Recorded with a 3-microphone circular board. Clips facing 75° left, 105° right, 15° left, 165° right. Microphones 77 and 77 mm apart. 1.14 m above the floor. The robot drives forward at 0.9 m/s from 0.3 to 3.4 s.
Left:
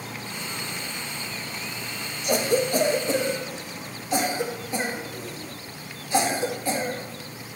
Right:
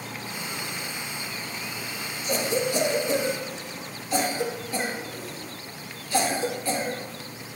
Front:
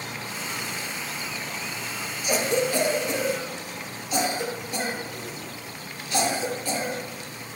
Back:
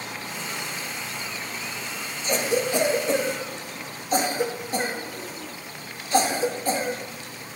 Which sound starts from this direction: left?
A cough, at 2.2 s.